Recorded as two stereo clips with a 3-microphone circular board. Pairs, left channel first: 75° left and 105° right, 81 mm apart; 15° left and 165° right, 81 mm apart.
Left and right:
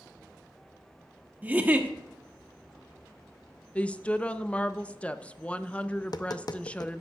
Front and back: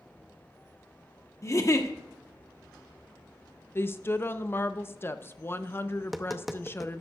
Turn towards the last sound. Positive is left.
turn(degrees=105)